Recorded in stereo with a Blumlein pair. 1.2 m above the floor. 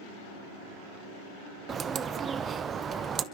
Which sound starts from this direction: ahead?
A bird, at 1.7 s.